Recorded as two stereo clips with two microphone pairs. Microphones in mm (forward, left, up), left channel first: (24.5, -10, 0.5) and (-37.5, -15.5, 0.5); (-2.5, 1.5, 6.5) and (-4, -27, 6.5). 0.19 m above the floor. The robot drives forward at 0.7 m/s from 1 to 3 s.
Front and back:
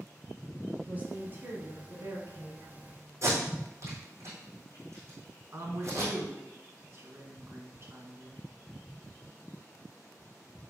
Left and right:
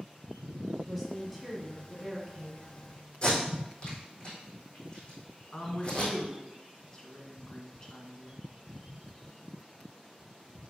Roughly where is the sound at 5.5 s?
Behind left.